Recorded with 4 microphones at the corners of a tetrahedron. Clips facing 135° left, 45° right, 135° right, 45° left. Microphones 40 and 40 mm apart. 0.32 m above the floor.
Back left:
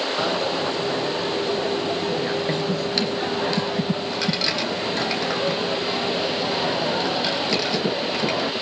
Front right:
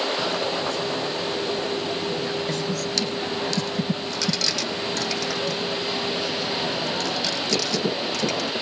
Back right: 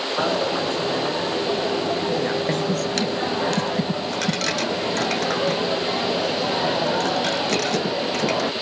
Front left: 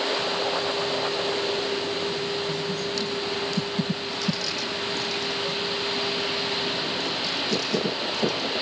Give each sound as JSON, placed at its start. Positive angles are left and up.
{"t": 0.2, "sound": "a dropped coin", "azimuth_deg": -155, "distance_m": 1.4}